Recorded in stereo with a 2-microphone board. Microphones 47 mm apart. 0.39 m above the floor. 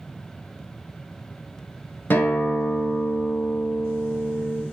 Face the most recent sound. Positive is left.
turn(degrees=50)  # may be behind; listen again after turning